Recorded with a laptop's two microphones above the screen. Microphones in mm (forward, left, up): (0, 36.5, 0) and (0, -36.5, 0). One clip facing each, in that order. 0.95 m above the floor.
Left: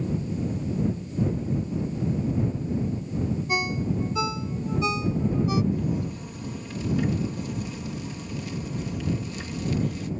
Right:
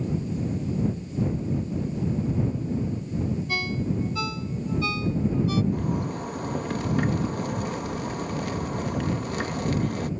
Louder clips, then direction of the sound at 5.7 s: Right 1 dB; 55° right (ahead or behind).